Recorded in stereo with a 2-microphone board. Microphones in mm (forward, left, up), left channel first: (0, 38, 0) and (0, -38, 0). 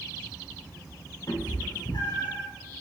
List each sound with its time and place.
1.3 s a cat meowing: 70° left (ahead or behind), 0.6 m